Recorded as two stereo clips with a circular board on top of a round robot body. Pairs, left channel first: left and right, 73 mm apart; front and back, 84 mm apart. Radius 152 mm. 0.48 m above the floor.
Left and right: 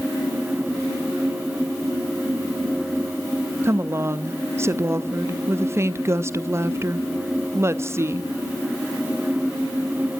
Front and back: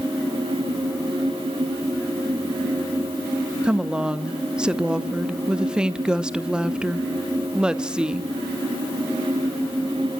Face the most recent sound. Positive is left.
turn(degrees=-105)